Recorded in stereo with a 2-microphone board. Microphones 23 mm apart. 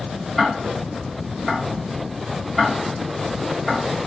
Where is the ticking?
Centre (ahead or behind), 1.5 m.